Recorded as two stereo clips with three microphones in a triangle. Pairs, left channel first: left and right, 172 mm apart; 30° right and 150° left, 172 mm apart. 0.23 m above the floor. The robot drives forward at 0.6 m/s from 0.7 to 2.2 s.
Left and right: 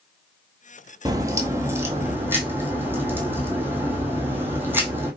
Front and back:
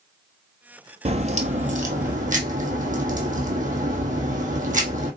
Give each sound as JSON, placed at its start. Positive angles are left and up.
{"t": 1.1, "sound": "a crack", "azimuth_deg": -155, "distance_m": 0.8}